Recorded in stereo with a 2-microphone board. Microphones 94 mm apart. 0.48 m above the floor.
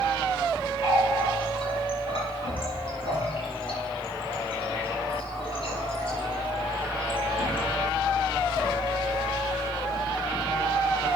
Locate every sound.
0.8 s a running tap: 70° left (ahead or behind), 6.5 m